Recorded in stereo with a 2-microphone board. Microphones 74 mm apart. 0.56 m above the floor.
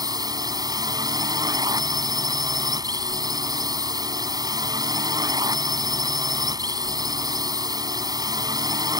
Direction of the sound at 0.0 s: 60° right (ahead or behind).